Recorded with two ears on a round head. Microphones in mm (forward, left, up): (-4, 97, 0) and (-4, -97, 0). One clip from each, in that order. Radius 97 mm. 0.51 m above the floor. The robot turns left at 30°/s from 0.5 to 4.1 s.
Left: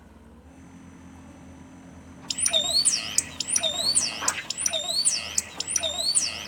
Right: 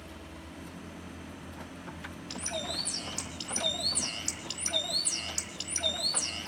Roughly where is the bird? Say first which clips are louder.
Left 12 dB; left.